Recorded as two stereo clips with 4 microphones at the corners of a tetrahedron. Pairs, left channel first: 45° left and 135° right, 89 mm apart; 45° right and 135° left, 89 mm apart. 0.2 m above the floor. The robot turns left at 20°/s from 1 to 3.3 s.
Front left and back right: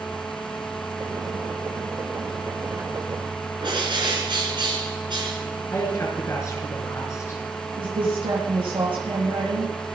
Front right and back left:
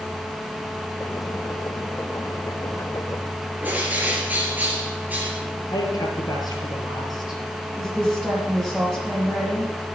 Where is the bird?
155° right, 3.5 m.